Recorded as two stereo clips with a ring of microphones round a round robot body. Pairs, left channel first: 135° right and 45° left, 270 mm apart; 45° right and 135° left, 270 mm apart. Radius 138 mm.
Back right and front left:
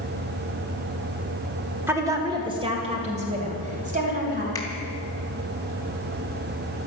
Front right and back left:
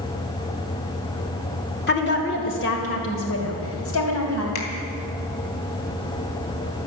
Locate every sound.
1.9 s a woman speaking: 30° right, 1.6 m; by 4.5 s 15° right, 3.5 m
4.5 s a finger snap: 60° right, 3 m